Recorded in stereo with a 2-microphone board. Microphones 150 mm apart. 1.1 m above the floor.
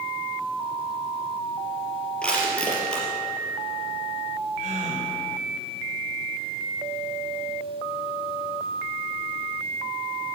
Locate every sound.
2.2 s crushing: 5° left (ahead or behind), 4 m
4.6 s a gasp: 60° right (ahead or behind), 4 m